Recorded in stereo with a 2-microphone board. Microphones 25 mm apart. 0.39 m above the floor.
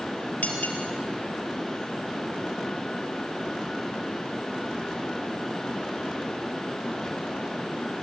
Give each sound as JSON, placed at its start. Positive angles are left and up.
{"t": 0.4, "sound": "cutlery clinking", "side_deg": 80, "distance_m": 4.5}